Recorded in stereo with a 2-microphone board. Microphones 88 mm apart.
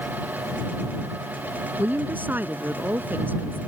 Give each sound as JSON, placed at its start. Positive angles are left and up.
{"t": 1.8, "sound": "a woman speaking", "side_deg": -20}